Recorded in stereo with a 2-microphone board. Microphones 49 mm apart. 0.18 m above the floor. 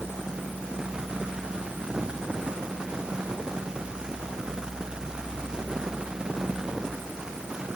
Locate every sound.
Only background noise.